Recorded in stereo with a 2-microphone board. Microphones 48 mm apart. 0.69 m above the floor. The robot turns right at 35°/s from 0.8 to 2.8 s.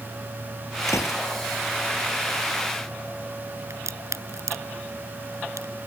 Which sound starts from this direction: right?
A crack, at 3.7 s.